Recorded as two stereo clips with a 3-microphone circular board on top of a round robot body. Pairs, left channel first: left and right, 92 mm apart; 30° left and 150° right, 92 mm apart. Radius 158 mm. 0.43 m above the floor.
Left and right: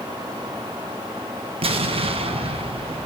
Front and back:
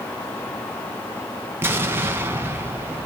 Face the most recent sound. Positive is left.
turn(degrees=-85)